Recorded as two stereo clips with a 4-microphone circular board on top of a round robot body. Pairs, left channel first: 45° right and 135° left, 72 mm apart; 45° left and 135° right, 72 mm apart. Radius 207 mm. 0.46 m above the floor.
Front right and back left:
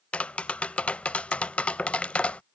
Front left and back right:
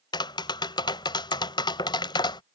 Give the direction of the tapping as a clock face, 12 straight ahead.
11 o'clock.